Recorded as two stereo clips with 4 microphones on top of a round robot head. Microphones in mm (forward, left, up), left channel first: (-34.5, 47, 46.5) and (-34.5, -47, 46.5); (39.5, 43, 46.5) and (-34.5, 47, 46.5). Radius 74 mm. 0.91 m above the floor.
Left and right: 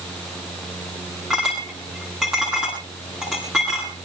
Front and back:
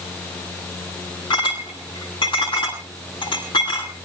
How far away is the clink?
About 9.5 m.